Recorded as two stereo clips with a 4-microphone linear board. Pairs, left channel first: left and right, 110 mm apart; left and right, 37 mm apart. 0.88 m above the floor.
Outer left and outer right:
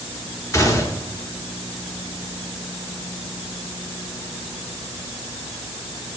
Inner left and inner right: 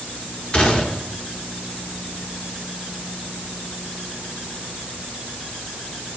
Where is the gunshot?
30° left (ahead or behind), 1.1 m.